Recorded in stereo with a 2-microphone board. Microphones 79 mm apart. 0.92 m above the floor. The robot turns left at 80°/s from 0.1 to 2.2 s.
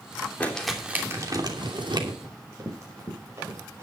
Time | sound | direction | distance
0.4 | crumpling | 25° left | 3 m
2.2 | running footsteps | 40° right (ahead or behind) | 6 m